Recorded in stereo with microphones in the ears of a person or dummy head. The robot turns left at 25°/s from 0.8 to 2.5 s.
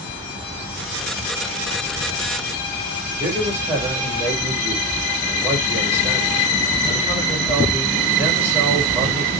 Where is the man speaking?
15° right (ahead or behind), 2.5 m.